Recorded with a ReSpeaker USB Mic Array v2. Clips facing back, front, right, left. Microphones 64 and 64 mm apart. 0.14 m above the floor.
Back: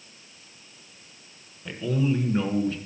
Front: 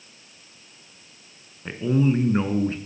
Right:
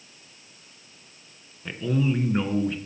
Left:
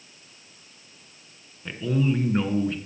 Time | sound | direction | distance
1.6 | a man speaking | 5° right | 1.3 m